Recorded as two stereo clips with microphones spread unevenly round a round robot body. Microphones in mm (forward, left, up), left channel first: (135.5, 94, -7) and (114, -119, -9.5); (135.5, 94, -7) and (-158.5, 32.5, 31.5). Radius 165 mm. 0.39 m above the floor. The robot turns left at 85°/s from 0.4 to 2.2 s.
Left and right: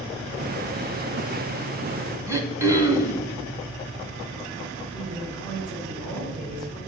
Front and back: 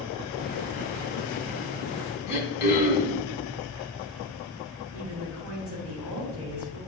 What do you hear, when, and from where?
2.3 s throat clearing: 25° right, 1.3 m
4.9 s a woman speaking: 120° right, 2 m